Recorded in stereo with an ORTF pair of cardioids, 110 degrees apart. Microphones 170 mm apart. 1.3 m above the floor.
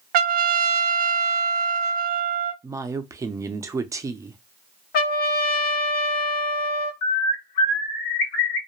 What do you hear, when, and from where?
0.1 s a trumpet: 65° right, 0.5 m
2.6 s a woman speaking: 20° right, 0.5 m
4.9 s a trumpet: 65° left, 1.0 m
7.0 s a bird: 70° left, 1.0 m